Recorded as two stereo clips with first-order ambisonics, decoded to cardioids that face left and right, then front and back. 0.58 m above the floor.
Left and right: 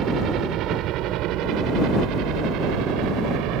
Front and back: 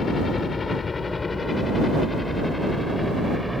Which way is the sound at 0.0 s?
60° right.